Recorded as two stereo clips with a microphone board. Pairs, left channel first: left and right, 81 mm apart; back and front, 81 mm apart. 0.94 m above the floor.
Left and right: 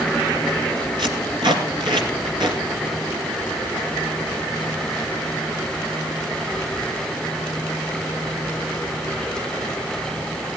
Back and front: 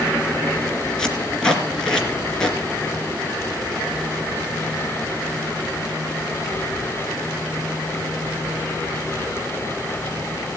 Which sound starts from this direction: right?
Tape being pulled, at 1.0 s.